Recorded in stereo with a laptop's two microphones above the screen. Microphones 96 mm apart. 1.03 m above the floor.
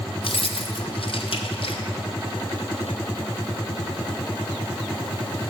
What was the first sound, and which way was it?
Keys jangling, 70° left (ahead or behind).